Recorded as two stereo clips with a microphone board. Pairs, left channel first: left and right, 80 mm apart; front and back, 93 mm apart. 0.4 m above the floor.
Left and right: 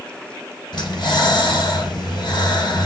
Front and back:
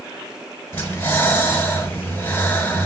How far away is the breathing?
About 6.5 m.